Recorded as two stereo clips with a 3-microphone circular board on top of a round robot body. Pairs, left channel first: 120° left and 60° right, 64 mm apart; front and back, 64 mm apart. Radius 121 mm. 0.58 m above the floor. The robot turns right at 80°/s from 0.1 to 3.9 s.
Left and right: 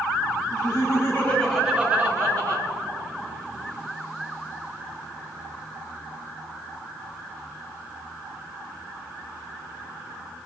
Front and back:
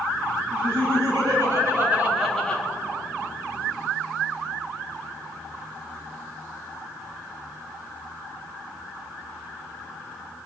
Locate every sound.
0.5 s laughter: 125° left, 5 m; by 2.6 s 65° right, 5 m